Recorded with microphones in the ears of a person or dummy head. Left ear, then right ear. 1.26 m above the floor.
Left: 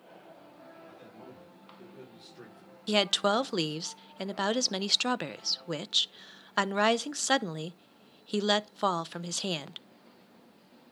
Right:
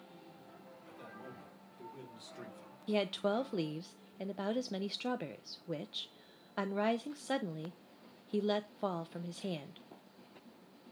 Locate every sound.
0.9 s a man speaking: 25° right (ahead or behind), 5.5 m
2.9 s a woman speaking: 45° left (ahead or behind), 0.6 m